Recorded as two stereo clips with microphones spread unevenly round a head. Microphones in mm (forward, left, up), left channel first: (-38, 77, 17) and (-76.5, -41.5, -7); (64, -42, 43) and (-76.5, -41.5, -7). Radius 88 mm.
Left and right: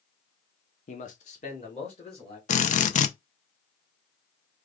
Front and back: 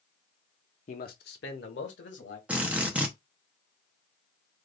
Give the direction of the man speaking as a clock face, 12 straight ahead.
10 o'clock.